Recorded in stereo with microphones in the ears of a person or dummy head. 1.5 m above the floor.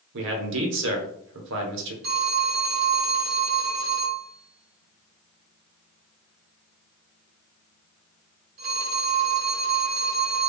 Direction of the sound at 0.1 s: 65° right (ahead or behind).